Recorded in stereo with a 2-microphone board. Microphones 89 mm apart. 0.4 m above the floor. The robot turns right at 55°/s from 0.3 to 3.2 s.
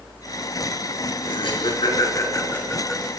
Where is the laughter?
85° left, 6.5 m; by 3.1 s 170° right, 6.5 m.